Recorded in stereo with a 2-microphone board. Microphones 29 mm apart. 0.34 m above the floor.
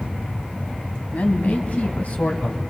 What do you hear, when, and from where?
1.1 s a man speaking: 60° left (ahead or behind), 3 m; by 2.6 s 50° left (ahead or behind), 2.5 m